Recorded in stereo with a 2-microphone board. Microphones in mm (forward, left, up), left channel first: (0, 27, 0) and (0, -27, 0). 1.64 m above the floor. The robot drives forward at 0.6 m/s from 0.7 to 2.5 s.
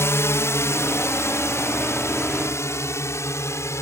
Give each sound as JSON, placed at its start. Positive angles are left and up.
{"t": 0.0, "sound": "a drone", "side_deg": 50}